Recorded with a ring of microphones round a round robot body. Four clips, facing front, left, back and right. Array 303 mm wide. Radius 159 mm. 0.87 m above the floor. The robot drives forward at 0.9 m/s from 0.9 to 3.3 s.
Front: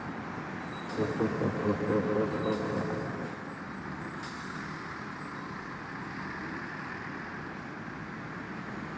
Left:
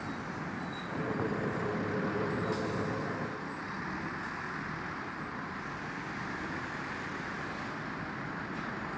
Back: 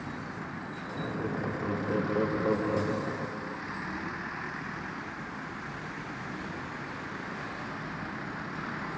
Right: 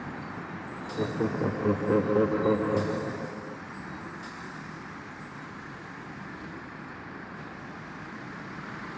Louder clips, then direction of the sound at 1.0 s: Right 6 dB, front 5 dB; 50° right.